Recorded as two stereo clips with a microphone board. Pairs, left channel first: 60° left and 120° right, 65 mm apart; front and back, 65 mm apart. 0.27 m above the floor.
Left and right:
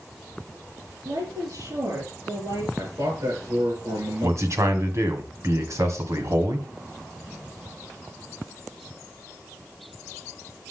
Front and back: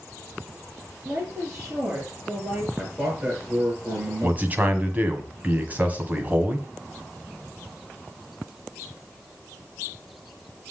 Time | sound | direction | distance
1.1 | a woman speaking | 130° right | 5.5 m
2.8 | a man speaking | 120° right | 5.5 m
4.2 | a man speaking | 125° right | 1.7 m